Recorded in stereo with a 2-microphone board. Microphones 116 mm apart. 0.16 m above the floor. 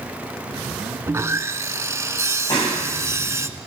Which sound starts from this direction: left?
A clap, at 2.5 s.